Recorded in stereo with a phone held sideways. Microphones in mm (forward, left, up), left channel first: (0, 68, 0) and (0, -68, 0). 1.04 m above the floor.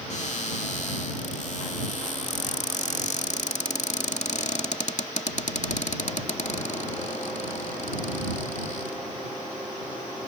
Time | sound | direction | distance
0.1 | a cupboard door | 60° left (ahead or behind) | ?